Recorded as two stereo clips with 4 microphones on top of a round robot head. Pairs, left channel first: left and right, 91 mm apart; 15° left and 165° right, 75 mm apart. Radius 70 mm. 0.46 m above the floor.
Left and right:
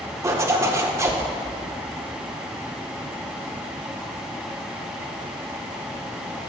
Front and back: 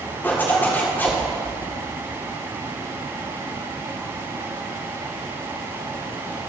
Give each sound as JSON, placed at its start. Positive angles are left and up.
{"t": 0.2, "sound": "a zipper", "azimuth_deg": -45, "distance_m": 1.7}